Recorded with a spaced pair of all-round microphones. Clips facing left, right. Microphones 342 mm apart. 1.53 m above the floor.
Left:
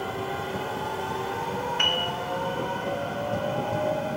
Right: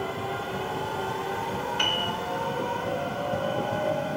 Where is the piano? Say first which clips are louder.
Left 1 dB; 50° right (ahead or behind), 0.6 m.